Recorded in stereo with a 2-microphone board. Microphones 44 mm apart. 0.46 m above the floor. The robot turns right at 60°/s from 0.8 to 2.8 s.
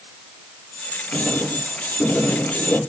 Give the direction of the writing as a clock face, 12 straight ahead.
1 o'clock.